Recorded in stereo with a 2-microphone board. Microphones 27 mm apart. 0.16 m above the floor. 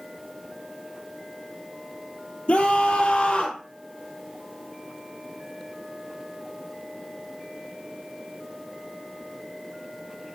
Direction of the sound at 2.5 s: 45° left (ahead or behind).